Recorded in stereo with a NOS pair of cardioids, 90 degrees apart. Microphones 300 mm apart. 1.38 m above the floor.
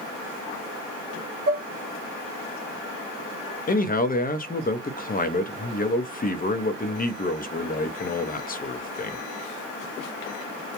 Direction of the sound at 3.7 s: 30° left.